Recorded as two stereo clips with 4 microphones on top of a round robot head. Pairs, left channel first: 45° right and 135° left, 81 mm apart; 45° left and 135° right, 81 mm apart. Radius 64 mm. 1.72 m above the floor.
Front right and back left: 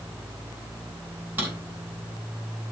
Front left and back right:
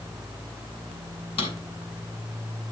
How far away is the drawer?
About 5.5 m.